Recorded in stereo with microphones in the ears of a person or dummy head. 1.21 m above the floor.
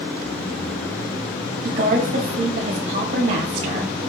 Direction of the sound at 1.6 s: 50° right (ahead or behind).